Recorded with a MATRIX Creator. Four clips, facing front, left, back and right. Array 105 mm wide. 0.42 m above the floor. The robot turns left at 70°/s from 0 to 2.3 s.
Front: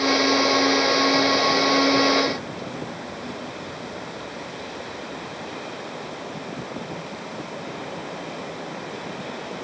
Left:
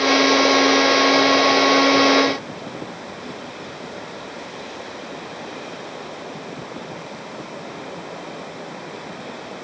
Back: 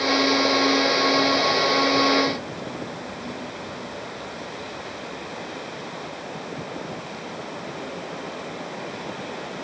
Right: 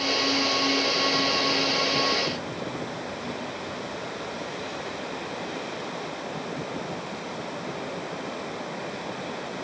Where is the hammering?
I don't hear hammering.